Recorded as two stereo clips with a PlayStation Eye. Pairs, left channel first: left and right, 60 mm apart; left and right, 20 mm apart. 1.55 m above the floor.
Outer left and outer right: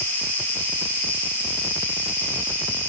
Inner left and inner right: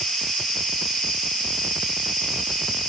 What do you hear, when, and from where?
0.0 s an insect: 30° left (ahead or behind), 1.0 m